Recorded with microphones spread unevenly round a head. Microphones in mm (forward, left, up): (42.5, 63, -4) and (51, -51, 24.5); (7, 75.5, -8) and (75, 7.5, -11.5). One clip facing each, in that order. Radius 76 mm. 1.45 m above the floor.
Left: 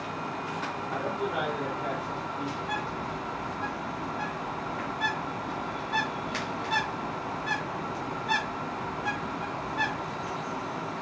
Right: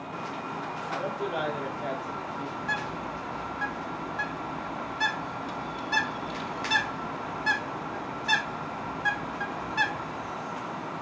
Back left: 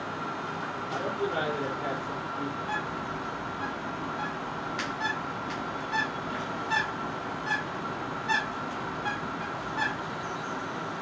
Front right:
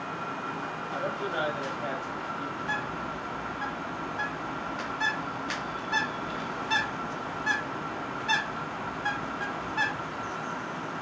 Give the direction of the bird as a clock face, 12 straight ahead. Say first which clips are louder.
Left 1 dB, even; 4 o'clock.